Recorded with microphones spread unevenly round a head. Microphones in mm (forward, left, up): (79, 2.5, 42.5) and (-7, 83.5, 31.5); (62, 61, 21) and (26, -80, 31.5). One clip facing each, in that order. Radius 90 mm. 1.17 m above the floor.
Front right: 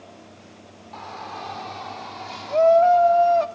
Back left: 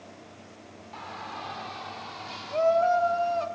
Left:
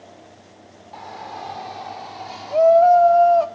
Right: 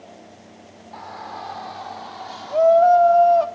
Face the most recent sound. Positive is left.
turn(degrees=-15)